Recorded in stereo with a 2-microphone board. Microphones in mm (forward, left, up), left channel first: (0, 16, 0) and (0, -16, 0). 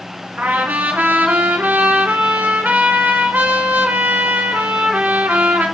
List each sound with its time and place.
0.4 s a trumpet: 75° right (ahead or behind), 2.5 m